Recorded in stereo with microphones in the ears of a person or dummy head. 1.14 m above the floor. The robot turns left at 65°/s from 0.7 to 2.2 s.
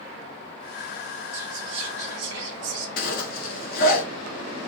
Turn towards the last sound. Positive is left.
turn(degrees=45)  # may be behind; listen again after turning